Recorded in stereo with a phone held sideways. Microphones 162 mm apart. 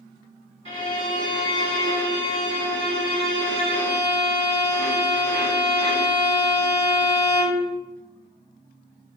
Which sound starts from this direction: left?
A violin, at 0.7 s.